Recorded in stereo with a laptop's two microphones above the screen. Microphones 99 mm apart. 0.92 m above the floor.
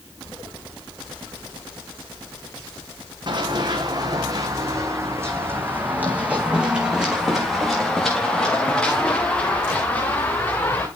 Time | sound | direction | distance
3.3 | running footsteps | 50° right (ahead or behind) | 2.5 m